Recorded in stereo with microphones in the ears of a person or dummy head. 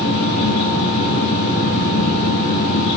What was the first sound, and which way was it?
A fan, 45° left (ahead or behind).